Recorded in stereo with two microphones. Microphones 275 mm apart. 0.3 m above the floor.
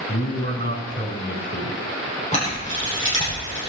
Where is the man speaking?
35° left (ahead or behind), 3 m.